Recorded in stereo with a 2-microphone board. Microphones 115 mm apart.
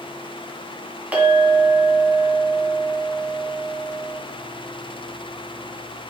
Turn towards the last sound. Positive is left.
turn(degrees=-15)  # may be behind; listen again after turning